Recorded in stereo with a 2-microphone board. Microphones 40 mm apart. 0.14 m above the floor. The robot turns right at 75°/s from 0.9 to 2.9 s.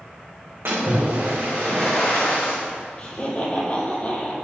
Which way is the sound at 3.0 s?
35° left (ahead or behind).